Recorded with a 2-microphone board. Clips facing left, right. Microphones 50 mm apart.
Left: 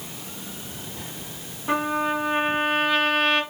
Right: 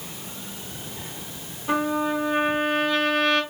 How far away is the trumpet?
About 1.4 m.